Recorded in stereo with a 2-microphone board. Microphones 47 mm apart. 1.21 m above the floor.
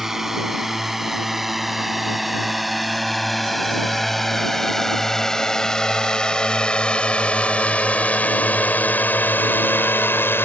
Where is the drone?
10° right (ahead or behind); by 10.5 s 60° left (ahead or behind).